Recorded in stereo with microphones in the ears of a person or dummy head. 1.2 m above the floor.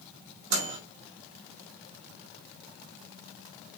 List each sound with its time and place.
0.5 s a microwave: 65° right (ahead or behind), 2.5 m